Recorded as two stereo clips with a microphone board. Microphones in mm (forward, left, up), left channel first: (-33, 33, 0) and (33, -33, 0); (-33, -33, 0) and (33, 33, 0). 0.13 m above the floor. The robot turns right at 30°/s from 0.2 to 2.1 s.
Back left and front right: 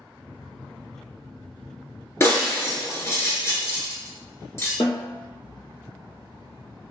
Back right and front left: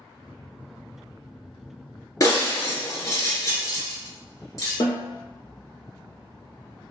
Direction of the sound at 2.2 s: 175° right.